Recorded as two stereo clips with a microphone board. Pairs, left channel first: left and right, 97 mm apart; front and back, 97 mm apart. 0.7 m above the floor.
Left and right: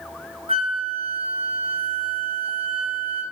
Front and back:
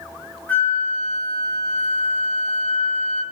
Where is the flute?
80° right, 3.5 m.